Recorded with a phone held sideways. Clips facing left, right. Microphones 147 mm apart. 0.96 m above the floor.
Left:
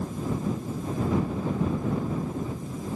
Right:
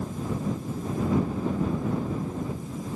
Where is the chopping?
I don't hear chopping.